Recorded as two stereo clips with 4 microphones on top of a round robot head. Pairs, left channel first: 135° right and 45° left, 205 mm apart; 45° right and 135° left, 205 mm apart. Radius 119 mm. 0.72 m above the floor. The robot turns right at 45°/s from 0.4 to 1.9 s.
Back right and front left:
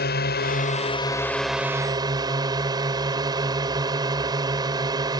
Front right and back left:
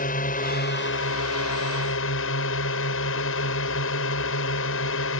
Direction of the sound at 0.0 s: 95° right.